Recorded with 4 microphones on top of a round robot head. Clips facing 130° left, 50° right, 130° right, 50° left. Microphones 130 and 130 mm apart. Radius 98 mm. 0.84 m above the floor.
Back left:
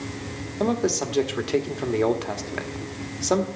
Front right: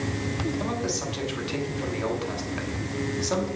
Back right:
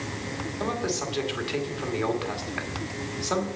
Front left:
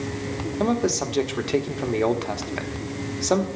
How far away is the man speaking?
About 1.5 m.